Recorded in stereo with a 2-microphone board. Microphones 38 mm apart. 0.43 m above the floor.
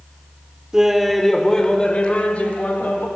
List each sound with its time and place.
0.7 s laughter: 15° right (ahead or behind), 1.0 m; by 3.1 s 45° left (ahead or behind), 2 m